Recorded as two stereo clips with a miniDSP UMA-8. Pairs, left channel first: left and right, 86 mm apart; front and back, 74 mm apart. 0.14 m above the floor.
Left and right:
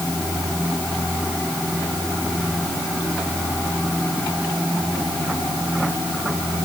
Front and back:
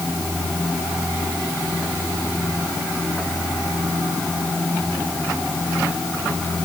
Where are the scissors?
No scissors in this recording.